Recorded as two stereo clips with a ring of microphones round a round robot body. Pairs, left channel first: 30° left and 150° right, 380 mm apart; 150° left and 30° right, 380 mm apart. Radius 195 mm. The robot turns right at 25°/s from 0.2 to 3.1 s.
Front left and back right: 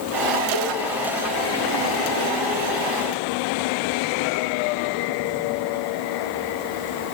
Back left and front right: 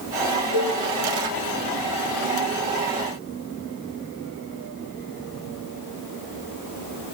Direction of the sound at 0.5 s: 10° right.